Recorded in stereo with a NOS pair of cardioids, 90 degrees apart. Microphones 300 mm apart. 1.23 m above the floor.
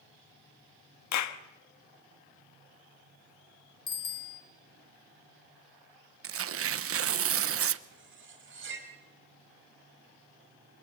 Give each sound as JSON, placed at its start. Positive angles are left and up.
{"t": 1.1, "sound": "a clap", "azimuth_deg": 65, "distance_m": 1.3}
{"t": 3.9, "sound": "a bicycle bell", "azimuth_deg": 45, "distance_m": 2.5}
{"t": 6.2, "sound": "tearing paper", "azimuth_deg": -45, "distance_m": 0.9}
{"t": 7.9, "sound": "cutlery clinking", "azimuth_deg": -40, "distance_m": 4.5}